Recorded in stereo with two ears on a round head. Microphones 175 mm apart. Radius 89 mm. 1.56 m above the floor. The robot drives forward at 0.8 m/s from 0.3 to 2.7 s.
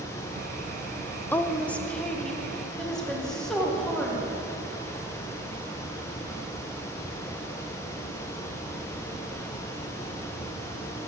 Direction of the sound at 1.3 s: 10° left (ahead or behind).